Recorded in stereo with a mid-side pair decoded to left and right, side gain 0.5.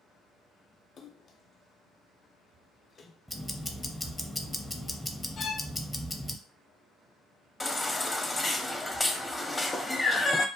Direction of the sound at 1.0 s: 45° left.